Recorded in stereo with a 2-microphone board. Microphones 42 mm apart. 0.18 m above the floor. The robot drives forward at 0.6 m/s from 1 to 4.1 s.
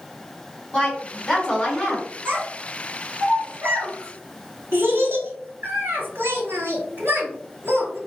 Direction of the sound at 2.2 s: 55° right (ahead or behind).